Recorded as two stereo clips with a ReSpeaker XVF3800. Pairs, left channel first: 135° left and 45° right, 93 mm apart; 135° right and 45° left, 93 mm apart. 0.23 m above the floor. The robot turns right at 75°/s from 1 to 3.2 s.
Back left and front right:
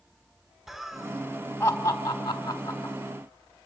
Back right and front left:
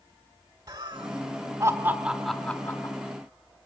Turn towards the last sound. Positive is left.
turn(degrees=-160)